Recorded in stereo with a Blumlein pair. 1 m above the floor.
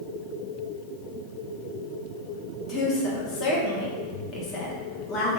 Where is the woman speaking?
30° left, 1.2 m.